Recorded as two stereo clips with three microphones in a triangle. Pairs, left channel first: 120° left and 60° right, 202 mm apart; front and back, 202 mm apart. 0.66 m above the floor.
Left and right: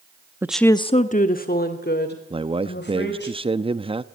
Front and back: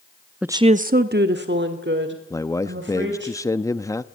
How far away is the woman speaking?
About 0.5 m.